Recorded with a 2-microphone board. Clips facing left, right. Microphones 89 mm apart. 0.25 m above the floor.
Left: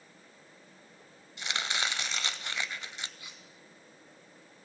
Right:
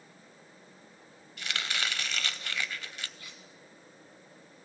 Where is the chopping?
25° left (ahead or behind), 0.6 m.